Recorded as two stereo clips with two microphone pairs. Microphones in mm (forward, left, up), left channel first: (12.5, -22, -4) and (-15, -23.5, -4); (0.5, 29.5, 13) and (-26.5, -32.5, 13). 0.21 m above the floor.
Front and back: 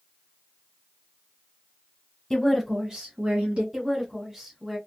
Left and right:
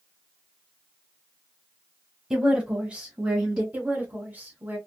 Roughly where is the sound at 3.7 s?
Behind right.